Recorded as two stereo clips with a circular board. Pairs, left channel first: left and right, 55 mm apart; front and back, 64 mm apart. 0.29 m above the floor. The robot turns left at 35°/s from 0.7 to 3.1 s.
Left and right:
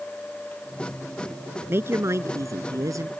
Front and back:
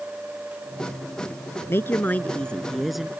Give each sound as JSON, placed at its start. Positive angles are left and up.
{"t": 1.7, "sound": "a woman speaking", "azimuth_deg": -45}